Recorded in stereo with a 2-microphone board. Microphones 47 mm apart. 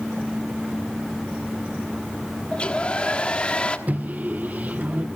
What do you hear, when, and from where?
2.5 s a hair dryer: 25° left (ahead or behind), 1.2 m
3.9 s a microwave: 35° right (ahead or behind), 0.5 m